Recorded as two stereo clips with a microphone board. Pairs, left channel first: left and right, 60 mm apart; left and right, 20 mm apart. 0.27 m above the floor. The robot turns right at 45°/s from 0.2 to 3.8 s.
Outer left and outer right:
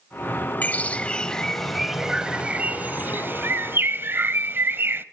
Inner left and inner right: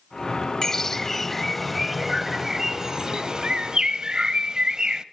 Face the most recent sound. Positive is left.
turn(degrees=-85)